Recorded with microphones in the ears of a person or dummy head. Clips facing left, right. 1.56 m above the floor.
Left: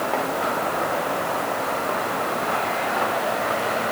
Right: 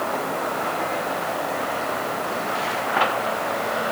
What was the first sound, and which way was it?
Only background noise.